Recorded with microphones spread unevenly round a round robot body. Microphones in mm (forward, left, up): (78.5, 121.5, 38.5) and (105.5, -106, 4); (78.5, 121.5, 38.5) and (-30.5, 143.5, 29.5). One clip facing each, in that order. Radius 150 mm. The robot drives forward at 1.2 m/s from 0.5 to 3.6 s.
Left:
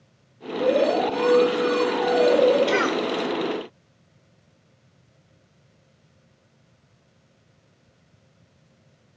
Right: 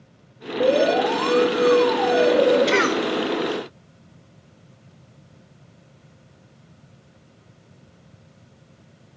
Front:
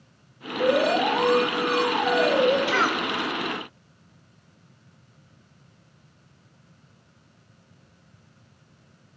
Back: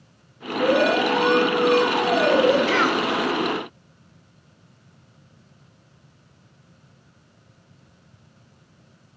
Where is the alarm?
95° right, 3 m; by 2.6 s 135° right, 4 m.